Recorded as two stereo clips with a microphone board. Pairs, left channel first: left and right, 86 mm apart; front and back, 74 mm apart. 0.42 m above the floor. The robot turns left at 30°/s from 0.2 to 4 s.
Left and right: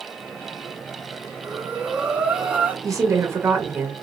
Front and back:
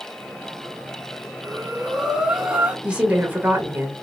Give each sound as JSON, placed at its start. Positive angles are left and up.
{"t": 1.4, "sound": "breathing", "azimuth_deg": -90, "distance_m": 1.4}
{"t": 2.8, "sound": "a woman speaking", "azimuth_deg": -110, "distance_m": 1.4}